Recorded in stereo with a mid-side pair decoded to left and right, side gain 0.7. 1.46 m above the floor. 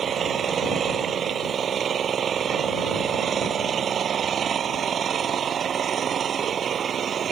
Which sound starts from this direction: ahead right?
An engine running, at 0.0 s.